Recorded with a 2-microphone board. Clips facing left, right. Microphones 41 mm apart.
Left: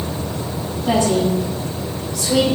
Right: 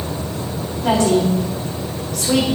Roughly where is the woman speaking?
Right.